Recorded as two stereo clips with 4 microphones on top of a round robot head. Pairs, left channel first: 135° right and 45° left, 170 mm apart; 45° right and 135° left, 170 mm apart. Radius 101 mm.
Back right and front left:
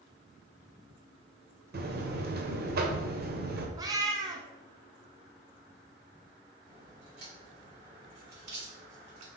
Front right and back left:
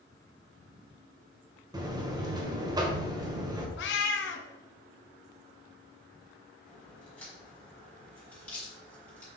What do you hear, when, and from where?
1.7 s a buzzer: 65° left, 1.1 m
3.8 s a cat meowing: 25° right, 0.8 m
6.7 s a crack: 35° left, 3.5 m